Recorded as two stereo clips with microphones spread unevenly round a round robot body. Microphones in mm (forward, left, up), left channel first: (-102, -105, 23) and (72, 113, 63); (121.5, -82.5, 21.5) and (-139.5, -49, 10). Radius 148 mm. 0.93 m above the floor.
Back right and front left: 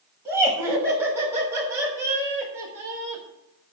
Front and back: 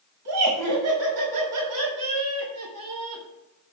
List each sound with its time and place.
0.2 s laughter: 135° left, 6.5 m; by 3.2 s 130° left, 4.5 m